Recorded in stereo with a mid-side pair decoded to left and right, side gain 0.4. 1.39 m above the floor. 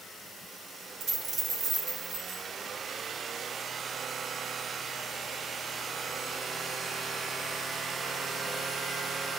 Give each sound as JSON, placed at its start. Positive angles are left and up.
{"t": 1.0, "sound": "a dropped coin", "azimuth_deg": -65, "distance_m": 3.0}